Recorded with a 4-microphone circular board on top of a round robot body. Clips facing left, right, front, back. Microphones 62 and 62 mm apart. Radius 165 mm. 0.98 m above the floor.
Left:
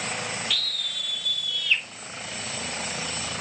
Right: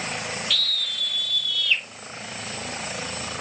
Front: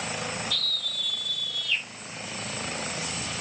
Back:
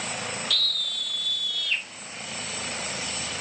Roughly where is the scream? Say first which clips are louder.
Right 3 dB, back 2 dB; behind.